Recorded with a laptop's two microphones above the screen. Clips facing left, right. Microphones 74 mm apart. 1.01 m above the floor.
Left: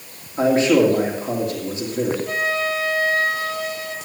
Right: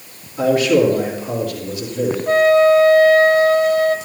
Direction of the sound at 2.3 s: 45° right (ahead or behind).